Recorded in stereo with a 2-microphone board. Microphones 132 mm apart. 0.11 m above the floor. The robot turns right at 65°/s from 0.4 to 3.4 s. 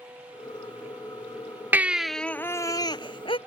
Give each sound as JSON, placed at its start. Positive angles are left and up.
{"t": 1.7, "sound": "a baby crying", "azimuth_deg": -20}